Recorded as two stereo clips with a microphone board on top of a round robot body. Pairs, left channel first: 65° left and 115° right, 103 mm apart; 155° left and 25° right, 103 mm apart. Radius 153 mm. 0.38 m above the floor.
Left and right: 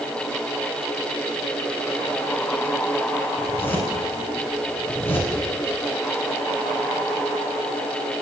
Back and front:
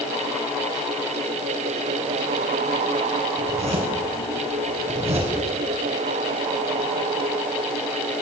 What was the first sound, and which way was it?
A zipper, straight ahead.